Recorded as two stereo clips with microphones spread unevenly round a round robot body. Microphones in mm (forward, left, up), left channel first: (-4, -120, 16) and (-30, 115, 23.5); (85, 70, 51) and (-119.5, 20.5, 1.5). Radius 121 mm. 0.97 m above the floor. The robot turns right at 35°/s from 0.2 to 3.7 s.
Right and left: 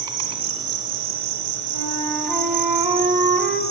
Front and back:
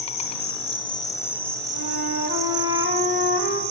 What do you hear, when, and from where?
0.0 s an insect: 30° left, 1.1 m; by 3.7 s 155° left, 1.1 m
1.7 s a flute: 20° right, 1.7 m; by 3.6 s 50° left, 1.7 m